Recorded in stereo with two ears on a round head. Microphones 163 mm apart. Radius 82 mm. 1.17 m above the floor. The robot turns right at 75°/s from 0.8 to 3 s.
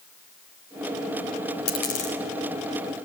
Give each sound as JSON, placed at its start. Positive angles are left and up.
{"t": 1.7, "sound": "a dropped coin", "side_deg": 70, "distance_m": 4.0}